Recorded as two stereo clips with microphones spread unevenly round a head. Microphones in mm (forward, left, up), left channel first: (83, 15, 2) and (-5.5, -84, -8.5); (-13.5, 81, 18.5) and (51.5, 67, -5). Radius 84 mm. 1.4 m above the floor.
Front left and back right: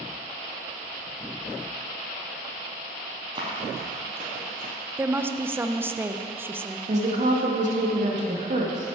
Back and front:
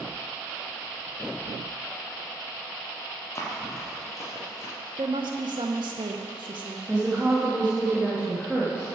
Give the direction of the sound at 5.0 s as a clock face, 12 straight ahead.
2 o'clock.